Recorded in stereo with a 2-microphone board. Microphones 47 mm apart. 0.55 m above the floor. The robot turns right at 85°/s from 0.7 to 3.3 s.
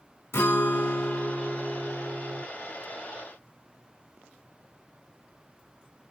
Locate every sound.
0.3 s a guitar: 100° left, 2.5 m; by 2.5 s 110° right, 2.5 m